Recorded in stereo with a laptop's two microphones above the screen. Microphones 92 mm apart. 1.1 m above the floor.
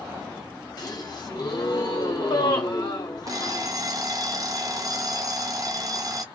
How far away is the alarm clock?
About 0.7 m.